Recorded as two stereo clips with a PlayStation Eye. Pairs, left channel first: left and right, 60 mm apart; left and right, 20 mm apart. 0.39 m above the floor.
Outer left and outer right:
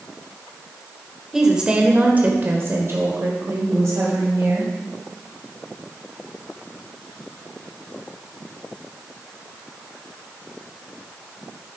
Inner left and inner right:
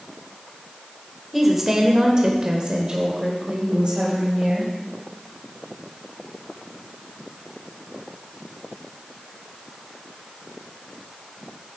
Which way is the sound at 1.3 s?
5° right (ahead or behind).